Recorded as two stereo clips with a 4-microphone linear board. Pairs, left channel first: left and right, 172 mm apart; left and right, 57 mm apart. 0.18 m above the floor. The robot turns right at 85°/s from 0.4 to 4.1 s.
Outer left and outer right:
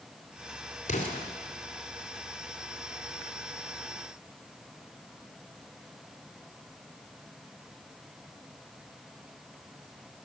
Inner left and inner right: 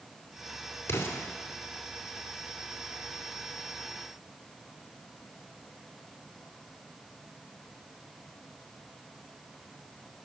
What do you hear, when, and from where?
0.9 s an explosion: 45° left (ahead or behind), 1.9 m; by 1.3 s 20° left (ahead or behind), 1.9 m